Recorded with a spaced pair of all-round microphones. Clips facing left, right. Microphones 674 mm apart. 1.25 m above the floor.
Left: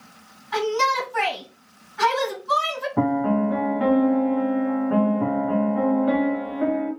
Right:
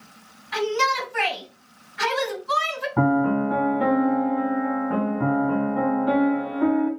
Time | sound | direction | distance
0.5 | a shout | 10° right (ahead or behind) | 1.8 m
3.0 | a piano | 30° right (ahead or behind) | 1.6 m